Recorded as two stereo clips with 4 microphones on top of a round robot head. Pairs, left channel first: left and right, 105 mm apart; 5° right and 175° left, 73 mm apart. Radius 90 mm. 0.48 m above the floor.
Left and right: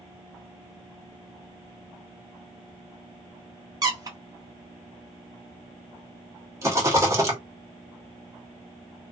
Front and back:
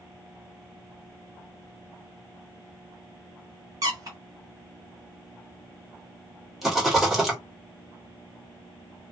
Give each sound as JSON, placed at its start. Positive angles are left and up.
{"t": 3.8, "sound": "a squeak", "azimuth_deg": -140, "distance_m": 1.0}
{"t": 6.6, "sound": "a rattle", "azimuth_deg": -100, "distance_m": 1.3}